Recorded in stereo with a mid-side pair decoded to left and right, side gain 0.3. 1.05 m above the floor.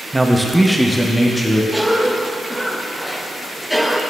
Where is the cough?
Straight ahead, 0.8 m.